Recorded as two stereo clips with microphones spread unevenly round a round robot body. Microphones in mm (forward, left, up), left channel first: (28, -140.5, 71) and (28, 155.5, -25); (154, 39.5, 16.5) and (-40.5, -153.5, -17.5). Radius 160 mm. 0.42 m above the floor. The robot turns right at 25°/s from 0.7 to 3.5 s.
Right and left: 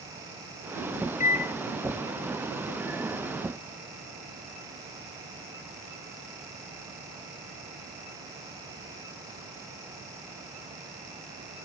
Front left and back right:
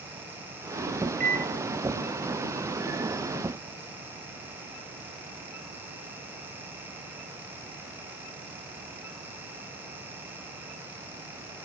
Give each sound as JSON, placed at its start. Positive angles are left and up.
{"t": 1.2, "sound": "a microwave", "azimuth_deg": -170, "distance_m": 0.6}